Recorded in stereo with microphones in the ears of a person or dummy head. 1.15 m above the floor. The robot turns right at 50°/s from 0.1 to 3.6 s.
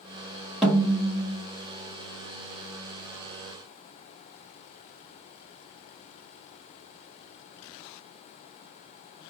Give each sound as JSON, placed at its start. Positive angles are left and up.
{"t": 0.6, "sound": "a snare drum", "azimuth_deg": -5, "distance_m": 1.2}